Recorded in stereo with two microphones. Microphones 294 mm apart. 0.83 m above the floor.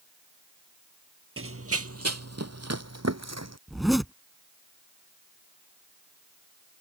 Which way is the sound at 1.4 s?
45° right (ahead or behind).